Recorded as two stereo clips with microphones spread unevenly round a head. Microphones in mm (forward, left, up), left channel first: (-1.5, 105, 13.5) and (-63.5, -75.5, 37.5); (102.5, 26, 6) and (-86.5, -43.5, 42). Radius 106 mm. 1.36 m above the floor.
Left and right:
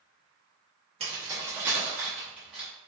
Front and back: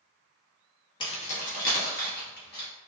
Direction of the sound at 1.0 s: 50° right.